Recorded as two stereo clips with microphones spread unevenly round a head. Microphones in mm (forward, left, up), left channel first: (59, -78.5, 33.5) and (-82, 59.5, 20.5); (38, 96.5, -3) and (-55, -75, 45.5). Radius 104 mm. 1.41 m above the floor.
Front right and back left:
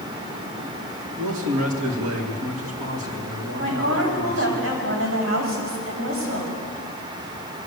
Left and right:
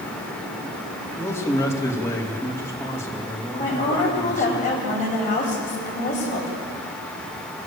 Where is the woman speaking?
115° left, 7 m.